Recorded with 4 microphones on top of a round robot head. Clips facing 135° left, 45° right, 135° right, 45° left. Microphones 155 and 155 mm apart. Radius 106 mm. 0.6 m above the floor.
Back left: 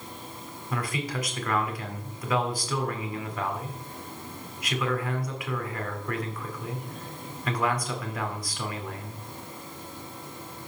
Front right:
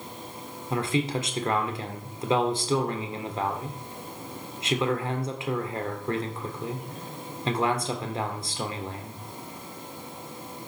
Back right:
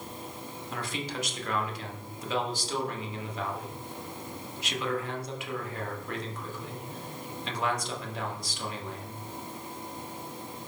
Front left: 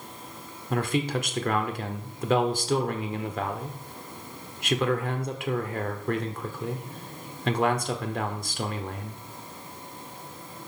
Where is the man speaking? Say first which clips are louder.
Front right 5 dB, front left 10 dB; 15° left, 2 m.